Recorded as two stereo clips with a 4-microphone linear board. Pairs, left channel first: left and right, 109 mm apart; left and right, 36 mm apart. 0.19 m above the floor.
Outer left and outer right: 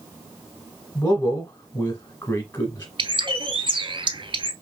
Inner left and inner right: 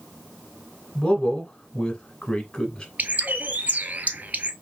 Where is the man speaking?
20° left (ahead or behind), 1.0 m.